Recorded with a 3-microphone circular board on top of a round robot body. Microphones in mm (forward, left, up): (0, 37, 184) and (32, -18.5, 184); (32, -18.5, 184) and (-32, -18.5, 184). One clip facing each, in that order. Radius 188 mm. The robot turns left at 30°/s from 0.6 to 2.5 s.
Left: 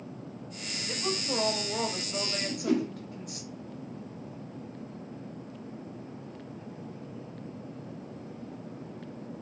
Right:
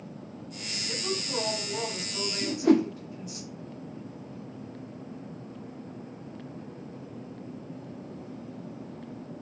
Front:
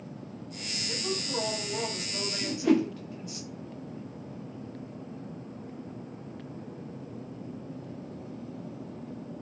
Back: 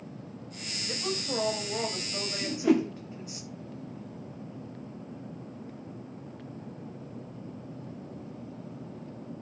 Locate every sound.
0.9 s a woman speaking: 165° left, 1.4 m; by 3.4 s 115° left, 1.4 m
2.4 s a whoosh: 90° right, 0.5 m; by 2.9 s 95° right, 0.5 m